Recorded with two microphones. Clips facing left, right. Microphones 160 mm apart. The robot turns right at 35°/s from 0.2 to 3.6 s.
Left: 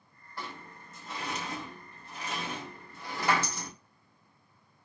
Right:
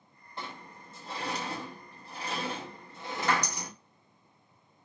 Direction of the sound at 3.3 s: 10° left (ahead or behind).